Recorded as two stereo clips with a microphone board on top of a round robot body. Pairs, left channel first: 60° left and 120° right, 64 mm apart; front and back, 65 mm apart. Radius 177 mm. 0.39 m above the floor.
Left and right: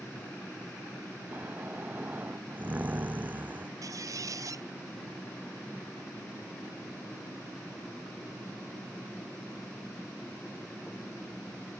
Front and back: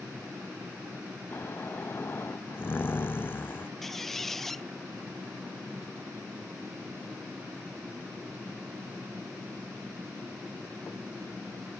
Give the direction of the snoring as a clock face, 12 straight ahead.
2 o'clock.